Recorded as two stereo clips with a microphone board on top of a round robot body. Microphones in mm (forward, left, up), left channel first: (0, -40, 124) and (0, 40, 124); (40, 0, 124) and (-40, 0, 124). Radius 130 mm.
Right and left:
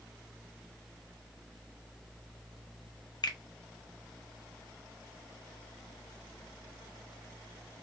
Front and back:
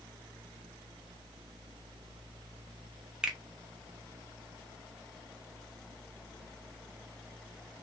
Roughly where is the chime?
No chime in this recording.